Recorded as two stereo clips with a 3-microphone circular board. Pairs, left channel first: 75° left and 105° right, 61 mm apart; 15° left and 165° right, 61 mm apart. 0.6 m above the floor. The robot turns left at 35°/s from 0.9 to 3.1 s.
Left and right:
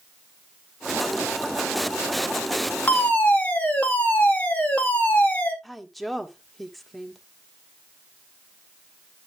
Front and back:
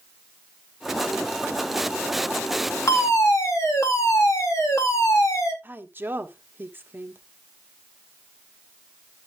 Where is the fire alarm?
20° left, 3 m; by 5.5 s 15° left, 3 m.